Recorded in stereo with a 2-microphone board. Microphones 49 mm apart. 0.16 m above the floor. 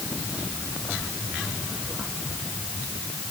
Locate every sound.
Only background noise.